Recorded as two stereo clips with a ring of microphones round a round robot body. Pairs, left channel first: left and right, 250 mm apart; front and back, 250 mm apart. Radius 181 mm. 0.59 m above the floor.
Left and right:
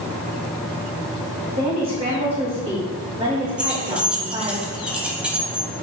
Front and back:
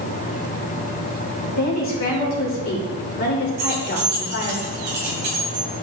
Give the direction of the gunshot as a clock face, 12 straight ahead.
No gunshot in this recording.